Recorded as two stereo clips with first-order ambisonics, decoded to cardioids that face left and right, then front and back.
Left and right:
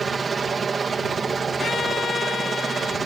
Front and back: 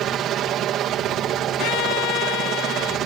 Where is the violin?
20° left.